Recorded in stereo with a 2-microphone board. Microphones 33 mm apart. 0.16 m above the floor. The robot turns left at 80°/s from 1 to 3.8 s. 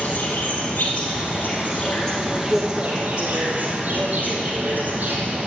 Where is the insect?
105° left, 2.5 m; by 5.5 s 120° right, 2.5 m.